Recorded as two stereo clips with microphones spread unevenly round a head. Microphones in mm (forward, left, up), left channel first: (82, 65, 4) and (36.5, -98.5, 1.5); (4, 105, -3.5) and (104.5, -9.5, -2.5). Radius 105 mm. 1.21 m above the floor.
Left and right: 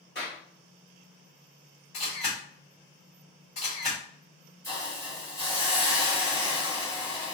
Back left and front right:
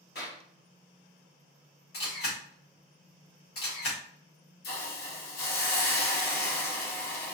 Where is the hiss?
150° left, 1.0 m.